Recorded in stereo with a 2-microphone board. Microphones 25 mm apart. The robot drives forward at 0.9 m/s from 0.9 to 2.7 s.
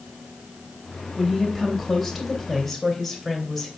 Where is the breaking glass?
I don't hear breaking glass.